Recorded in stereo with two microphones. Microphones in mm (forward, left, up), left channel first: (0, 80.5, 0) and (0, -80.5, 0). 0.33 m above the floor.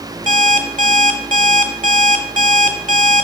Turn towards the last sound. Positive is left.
turn(degrees=-55)  # may be behind; listen again after turning